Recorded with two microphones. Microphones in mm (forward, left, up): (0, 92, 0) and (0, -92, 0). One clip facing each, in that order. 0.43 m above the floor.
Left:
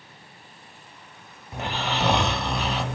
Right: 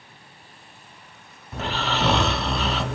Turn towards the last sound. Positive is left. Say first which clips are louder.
# right 2 dB
turn(degrees=15)  # may be behind; listen again after turning